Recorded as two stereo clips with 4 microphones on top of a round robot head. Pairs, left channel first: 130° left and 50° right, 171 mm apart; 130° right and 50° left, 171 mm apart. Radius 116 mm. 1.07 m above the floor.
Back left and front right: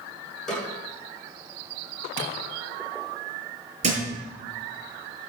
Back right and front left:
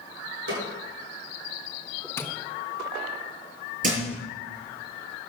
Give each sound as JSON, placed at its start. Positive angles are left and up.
{"t": 0.5, "sound": "a snare drum", "azimuth_deg": 45, "distance_m": 7.5}
{"t": 2.2, "sound": "tapping", "azimuth_deg": -55, "distance_m": 1.3}
{"t": 3.8, "sound": "a thud", "azimuth_deg": 5, "distance_m": 6.5}